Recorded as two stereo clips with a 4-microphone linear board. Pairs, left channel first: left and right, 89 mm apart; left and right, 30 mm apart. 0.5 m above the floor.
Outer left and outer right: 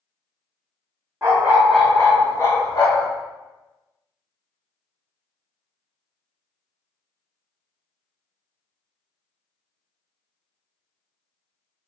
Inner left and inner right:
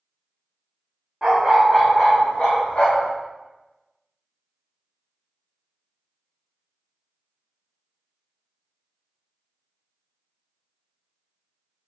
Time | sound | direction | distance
1.2 | a dog barking | 30° right (ahead or behind) | 0.7 m